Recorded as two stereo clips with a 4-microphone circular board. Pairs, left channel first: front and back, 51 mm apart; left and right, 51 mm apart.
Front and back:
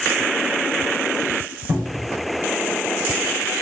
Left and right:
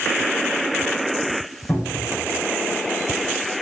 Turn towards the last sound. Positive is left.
turn(degrees=135)